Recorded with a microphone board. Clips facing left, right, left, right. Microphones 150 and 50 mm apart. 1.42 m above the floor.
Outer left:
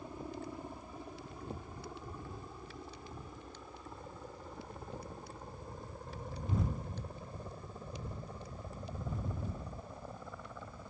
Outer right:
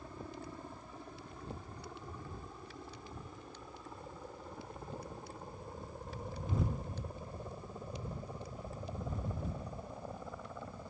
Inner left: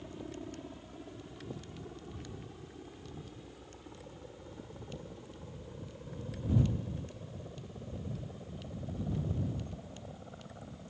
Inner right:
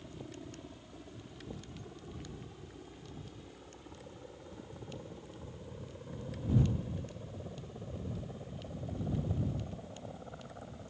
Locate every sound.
0.0 s a helicopter: 15° left (ahead or behind); by 10.9 s 10° right (ahead or behind)